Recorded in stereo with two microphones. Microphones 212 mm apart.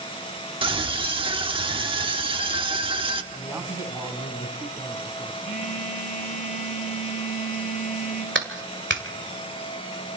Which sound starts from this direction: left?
A phone buzzing, at 5.4 s.